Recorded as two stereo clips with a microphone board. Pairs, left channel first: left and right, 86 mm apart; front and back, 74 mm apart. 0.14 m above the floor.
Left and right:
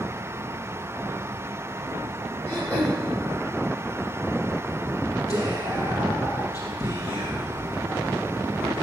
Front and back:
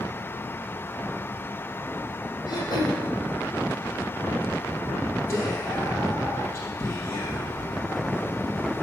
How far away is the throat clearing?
About 3 m.